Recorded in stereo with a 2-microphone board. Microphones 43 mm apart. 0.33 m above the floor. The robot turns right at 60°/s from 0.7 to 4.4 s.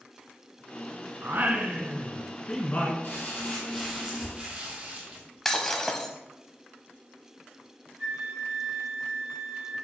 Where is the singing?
60° right, 1.1 m; by 2.9 s 45° left, 1.1 m.